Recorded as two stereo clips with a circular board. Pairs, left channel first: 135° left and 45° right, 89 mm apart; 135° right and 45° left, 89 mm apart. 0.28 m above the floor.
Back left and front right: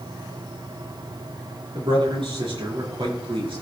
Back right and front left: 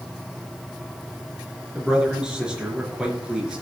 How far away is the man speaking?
About 4 m.